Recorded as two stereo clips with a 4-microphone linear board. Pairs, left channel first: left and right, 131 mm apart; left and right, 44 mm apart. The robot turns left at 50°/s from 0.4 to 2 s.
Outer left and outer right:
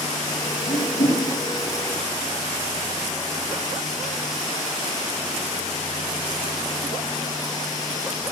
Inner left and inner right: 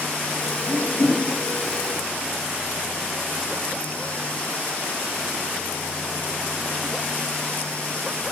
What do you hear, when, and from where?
0.7 s a whoosh: 70° left (ahead or behind), 5.5 m; by 1.2 s 75° left (ahead or behind), 5.5 m